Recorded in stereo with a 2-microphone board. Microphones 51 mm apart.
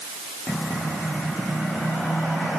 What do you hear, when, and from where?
Only background noise.